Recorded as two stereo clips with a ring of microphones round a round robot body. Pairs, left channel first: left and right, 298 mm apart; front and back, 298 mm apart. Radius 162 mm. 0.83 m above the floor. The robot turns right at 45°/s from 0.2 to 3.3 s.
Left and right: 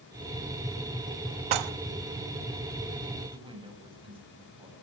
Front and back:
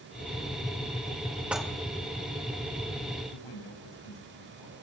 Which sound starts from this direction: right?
Dishes clattering, at 1.5 s.